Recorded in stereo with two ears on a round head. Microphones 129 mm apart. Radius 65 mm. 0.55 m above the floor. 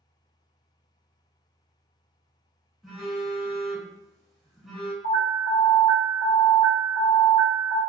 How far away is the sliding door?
No sliding door in this recording.